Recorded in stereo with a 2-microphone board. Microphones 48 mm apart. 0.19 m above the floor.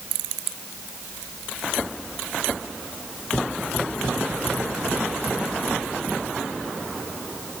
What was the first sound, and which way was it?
Only background noise.